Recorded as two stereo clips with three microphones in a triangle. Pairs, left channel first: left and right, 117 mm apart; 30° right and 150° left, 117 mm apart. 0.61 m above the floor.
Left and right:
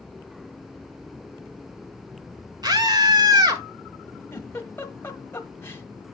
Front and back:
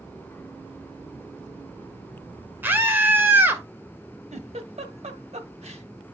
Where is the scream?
140° right, 1.8 m.